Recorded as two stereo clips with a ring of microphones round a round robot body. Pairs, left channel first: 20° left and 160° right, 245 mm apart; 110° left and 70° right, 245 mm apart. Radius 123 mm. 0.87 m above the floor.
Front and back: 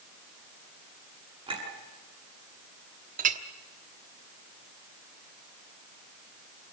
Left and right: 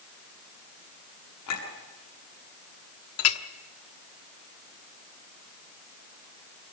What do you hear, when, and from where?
1.5 s a clink: 130° left, 7 m
3.2 s a clink: 145° left, 1.2 m